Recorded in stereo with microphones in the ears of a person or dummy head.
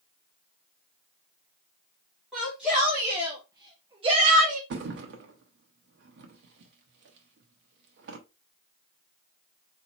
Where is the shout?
Centre (ahead or behind), 1.6 m; by 4.6 s 45° right (ahead or behind), 0.7 m.